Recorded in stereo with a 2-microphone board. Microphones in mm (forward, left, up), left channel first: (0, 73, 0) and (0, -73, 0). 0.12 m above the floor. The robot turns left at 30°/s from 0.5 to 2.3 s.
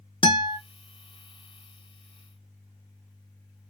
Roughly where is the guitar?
Left.